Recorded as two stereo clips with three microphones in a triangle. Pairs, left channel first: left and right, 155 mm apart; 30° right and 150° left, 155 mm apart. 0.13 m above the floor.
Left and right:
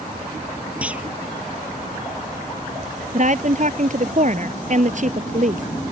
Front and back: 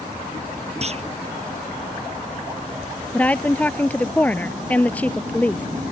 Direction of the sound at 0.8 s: 170° right.